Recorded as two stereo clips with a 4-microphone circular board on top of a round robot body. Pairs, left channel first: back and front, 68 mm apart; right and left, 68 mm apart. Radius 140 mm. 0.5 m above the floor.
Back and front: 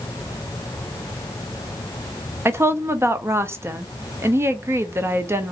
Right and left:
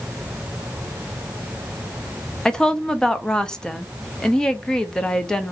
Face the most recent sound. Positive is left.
turn(degrees=-15)